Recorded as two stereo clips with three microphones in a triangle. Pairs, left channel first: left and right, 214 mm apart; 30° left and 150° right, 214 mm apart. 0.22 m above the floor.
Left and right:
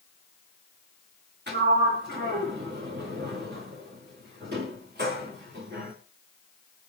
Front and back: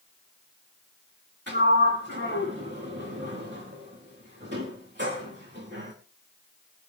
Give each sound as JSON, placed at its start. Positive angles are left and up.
{"t": 1.5, "sound": "a sliding door", "azimuth_deg": -125, "distance_m": 6.5}